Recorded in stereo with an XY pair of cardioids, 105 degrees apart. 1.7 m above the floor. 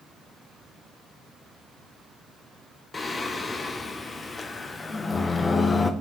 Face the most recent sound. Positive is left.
turn(degrees=35)